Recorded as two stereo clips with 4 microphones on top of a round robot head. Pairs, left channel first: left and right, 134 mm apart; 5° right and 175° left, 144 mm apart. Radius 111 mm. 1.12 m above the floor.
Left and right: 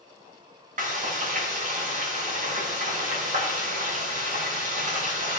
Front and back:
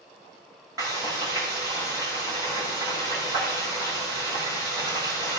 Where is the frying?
110° right, 2 m.